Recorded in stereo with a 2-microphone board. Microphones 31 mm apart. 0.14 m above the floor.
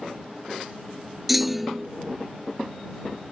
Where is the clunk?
5° right (ahead or behind).